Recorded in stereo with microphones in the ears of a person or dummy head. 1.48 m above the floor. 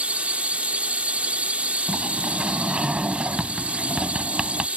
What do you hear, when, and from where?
0.0 s a drone: 10° right (ahead or behind)
1.9 s a sliding door: 5° right (ahead or behind)